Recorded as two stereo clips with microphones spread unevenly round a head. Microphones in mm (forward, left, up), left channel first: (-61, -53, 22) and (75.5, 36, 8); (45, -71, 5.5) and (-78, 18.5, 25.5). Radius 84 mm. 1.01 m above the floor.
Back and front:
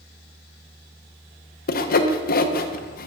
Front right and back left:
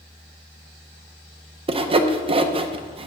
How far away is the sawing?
About 0.6 m.